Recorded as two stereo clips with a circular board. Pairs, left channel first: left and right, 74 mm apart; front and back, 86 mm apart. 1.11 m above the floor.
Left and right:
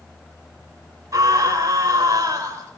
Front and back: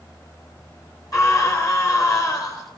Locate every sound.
1.1 s a scream: 45° right, 3 m